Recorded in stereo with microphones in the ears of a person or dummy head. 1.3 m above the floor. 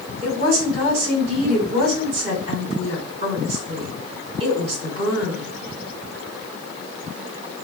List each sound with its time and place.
0.2 s a woman speaking: 85° right, 2 m